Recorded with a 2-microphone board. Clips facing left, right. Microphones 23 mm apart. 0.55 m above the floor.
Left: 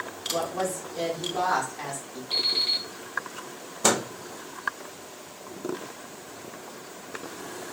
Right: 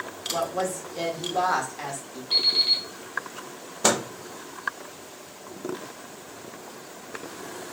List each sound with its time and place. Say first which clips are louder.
0.3 s a woman speaking: right 1 dB; 25° right (ahead or behind), 1.4 m
2.3 s an alarm clock: right 4 dB; 15° right (ahead or behind), 1.8 m
3.8 s a microwave: right 1 dB; 15° right (ahead or behind), 0.8 m